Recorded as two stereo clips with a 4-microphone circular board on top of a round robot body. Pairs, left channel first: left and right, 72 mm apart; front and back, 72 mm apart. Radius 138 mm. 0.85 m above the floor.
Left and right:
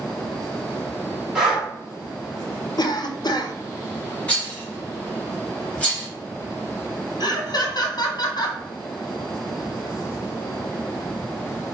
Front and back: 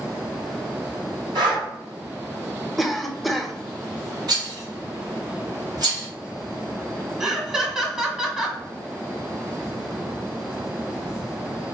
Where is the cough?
90° left, 0.9 m.